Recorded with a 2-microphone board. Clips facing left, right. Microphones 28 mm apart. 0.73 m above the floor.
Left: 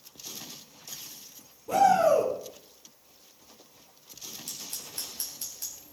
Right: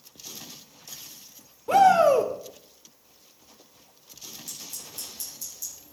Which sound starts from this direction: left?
Scissors, at 4.5 s.